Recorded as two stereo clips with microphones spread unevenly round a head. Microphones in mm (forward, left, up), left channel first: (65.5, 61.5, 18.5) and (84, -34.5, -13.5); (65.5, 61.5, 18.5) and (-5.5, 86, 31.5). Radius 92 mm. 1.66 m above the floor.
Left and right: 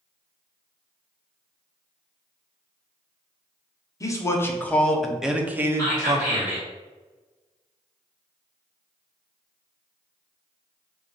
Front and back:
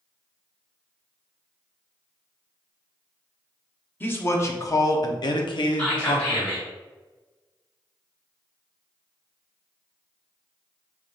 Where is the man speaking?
45° left, 1.3 m; by 6.6 s 35° right, 1.2 m.